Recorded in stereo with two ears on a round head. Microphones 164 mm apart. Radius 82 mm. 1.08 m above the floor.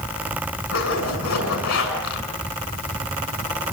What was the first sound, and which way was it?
A zipper, 90° left.